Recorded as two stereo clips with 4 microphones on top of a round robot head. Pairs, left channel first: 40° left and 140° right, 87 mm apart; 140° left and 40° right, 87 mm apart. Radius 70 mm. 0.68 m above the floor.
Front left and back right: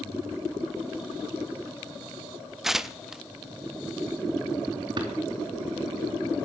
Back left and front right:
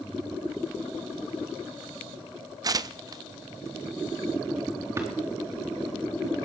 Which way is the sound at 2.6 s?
55° right.